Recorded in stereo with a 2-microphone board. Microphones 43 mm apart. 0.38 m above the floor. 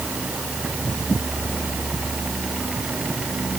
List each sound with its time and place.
Only background noise.